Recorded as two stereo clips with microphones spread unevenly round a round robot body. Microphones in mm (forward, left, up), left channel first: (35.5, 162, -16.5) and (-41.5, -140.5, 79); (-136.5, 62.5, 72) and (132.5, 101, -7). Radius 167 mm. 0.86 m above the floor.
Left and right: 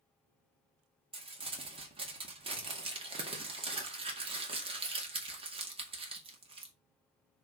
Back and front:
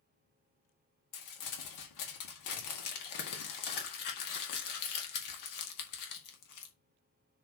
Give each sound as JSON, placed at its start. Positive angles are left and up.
{"t": 1.1, "sound": "crumpling", "azimuth_deg": 175, "distance_m": 2.0}